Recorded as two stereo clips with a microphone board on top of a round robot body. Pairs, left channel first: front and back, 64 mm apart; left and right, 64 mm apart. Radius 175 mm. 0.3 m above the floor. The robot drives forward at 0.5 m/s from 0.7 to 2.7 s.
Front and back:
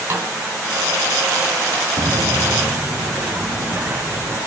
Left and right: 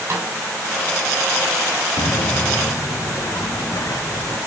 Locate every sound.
0.1 s a snare drum: 135° right, 3 m
2.0 s footsteps: 110° left, 0.9 m; by 4.4 s 125° left, 4 m